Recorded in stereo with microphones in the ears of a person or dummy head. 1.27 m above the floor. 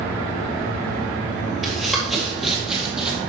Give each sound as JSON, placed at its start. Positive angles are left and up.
{"t": 1.6, "sound": "running footsteps", "side_deg": -5, "distance_m": 1.9}